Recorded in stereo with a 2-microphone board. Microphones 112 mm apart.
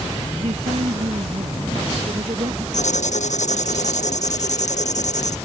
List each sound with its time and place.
0.4 s a woman speaking: 60° right (ahead or behind); by 2.6 s 50° right (ahead or behind)
2.7 s writing: 80° left